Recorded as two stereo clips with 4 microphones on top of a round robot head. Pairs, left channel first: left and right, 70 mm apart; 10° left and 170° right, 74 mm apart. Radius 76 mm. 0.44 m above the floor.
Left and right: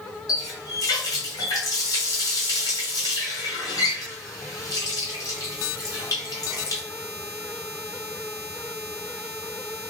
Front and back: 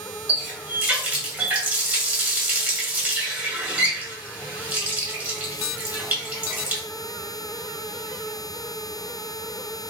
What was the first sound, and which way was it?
A running tap, 125° left.